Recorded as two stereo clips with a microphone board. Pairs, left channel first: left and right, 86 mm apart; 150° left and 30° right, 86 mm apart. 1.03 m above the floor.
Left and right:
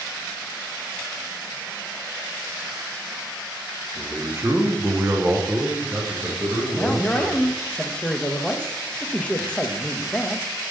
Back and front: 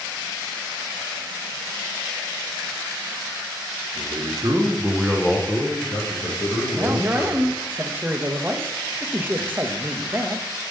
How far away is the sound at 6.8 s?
About 0.6 m.